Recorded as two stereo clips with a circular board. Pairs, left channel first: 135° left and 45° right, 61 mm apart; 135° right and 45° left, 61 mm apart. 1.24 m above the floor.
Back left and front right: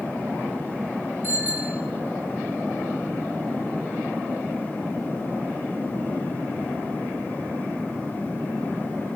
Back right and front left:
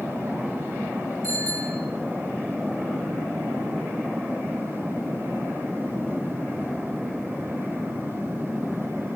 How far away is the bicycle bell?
About 9.5 m.